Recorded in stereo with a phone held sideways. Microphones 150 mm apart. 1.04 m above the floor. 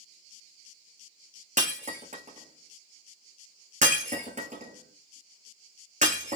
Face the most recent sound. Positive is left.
turn(degrees=-55)  # may be behind; listen again after turning